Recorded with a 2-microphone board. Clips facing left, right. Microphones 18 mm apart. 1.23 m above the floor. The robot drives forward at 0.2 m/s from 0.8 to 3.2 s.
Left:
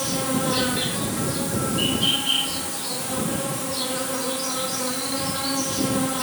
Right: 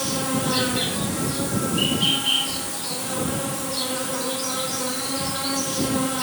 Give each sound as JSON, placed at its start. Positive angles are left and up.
{"t": 0.0, "sound": "an insect", "side_deg": -40, "distance_m": 0.7}